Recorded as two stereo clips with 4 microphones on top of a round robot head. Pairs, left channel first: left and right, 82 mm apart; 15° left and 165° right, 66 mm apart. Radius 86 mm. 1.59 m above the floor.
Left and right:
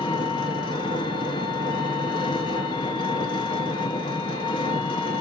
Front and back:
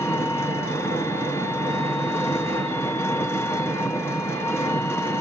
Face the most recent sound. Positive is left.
turn(degrees=65)